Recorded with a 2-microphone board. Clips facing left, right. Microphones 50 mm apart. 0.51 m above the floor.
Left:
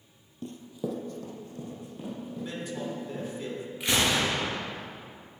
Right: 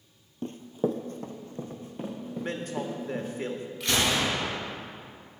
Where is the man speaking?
50° right (ahead or behind), 1.2 m.